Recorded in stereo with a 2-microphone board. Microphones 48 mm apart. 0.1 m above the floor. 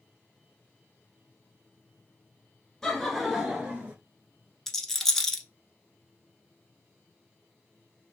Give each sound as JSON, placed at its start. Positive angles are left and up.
{"t": 2.8, "sound": "laughter", "side_deg": 15, "distance_m": 1.1}
{"t": 4.7, "sound": "a rattle", "side_deg": 5, "distance_m": 0.9}